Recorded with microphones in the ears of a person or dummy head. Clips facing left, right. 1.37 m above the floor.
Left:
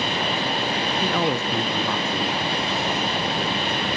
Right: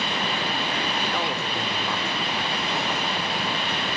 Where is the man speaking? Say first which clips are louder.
Left 5 dB; 45° left (ahead or behind), 0.8 m.